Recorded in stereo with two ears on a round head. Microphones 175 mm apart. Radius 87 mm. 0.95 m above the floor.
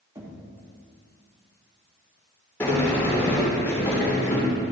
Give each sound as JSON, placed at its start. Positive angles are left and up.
{"t": 0.1, "sound": "knocking", "side_deg": -20, "distance_m": 1.7}
{"t": 2.6, "sound": "a sliding door", "side_deg": 10, "distance_m": 3.0}